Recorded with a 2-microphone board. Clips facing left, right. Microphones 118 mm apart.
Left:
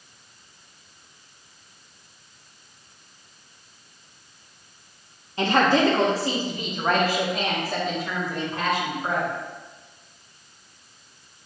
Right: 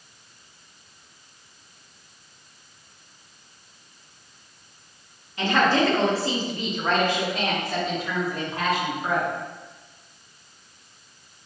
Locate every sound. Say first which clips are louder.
5.4 s a woman speaking: left 1 dB; 30° left (ahead or behind), 1.3 m; by 9.3 s 10° right (ahead or behind), 3 m